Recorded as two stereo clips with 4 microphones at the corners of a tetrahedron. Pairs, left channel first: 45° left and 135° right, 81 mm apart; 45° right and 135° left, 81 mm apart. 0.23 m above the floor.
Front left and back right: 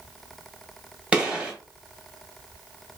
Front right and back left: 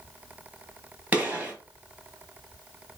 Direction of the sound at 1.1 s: 165° left.